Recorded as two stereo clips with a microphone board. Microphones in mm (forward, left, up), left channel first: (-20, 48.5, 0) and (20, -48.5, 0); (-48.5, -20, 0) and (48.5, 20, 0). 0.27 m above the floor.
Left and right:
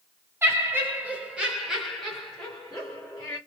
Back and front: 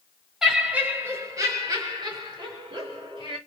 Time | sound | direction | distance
0.4 | laughter | 55° right | 1.2 m